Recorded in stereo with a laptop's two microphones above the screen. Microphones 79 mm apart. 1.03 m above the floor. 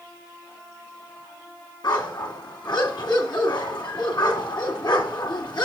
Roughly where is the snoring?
I don't hear snoring.